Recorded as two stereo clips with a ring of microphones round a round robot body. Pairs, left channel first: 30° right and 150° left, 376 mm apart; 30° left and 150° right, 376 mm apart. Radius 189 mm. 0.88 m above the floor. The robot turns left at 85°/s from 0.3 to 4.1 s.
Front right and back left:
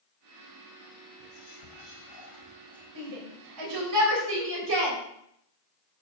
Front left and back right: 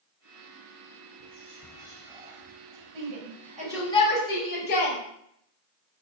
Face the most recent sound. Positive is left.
turn(degrees=95)